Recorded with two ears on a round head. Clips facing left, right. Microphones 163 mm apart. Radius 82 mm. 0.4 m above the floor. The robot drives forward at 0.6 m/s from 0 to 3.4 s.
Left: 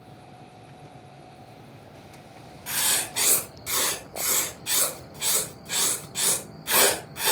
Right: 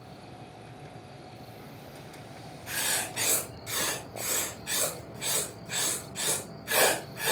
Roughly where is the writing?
Left.